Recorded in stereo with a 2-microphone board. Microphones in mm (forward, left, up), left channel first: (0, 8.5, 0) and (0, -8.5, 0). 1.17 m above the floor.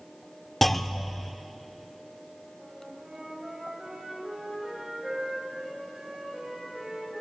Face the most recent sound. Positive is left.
turn(degrees=-75)  # may be behind; listen again after turning